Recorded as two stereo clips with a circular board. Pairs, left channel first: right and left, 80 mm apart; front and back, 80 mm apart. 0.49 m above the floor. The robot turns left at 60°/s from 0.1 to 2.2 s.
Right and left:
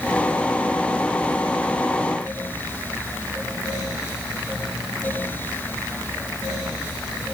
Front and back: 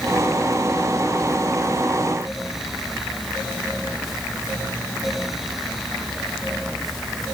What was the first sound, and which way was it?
Only background noise.